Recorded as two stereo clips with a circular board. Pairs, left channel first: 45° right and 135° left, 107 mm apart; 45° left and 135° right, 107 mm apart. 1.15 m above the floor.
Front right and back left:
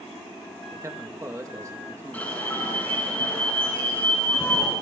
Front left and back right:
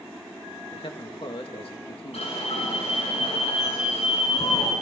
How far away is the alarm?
About 9 m.